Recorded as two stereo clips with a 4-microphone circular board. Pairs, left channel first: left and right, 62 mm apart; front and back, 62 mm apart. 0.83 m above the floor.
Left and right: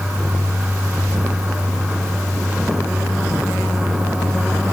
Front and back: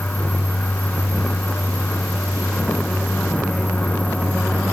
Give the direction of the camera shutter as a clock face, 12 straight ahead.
No camera shutter in this recording.